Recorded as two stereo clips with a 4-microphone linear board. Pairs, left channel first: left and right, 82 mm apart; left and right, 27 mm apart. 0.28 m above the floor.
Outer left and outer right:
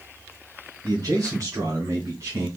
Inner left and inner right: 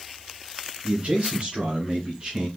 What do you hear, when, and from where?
0.8 s a man speaking: 50° right (ahead or behind), 3 m; by 2.5 s 35° right (ahead or behind), 1.9 m